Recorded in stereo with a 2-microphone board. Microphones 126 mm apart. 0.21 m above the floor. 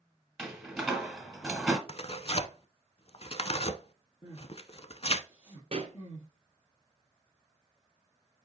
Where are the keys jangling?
I don't hear keys jangling.